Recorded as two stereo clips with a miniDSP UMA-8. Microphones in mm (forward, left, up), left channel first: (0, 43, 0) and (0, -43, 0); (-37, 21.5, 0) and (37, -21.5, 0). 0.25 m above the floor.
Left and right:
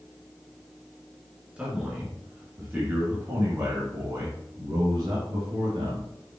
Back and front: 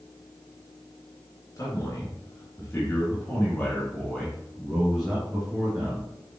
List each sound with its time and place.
1.6 s a man speaking: 165° right, 3 m; by 6.1 s 105° right, 3 m